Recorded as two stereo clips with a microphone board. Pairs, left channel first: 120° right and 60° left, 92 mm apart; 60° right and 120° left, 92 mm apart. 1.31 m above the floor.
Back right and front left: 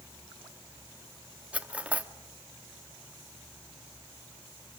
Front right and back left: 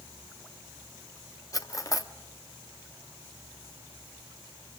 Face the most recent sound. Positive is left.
turn(degrees=-15)